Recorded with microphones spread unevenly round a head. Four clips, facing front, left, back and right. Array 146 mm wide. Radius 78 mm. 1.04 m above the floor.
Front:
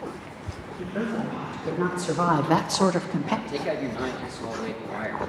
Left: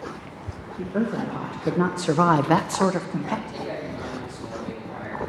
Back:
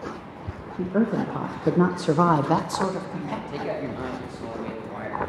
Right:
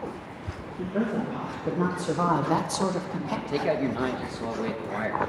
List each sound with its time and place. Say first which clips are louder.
0.8 s a woman speaking: left 2 dB, back 6 dB; 165° left, 1.3 m; by 3.4 s 15° left, 0.9 m
3.5 s a man speaking: right 6 dB, front 1 dB; 80° right, 1.3 m